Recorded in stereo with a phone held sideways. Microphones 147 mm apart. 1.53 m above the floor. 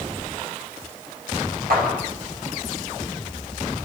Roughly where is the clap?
Right.